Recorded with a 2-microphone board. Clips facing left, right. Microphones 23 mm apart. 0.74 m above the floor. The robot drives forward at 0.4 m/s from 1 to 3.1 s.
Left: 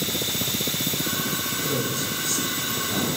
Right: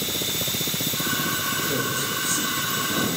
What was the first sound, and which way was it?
A man speaking, 25° left (ahead or behind).